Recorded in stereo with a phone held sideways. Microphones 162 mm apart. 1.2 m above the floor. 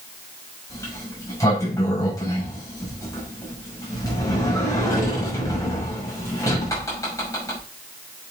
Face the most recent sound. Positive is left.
turn(degrees=20)  # may be behind; listen again after turning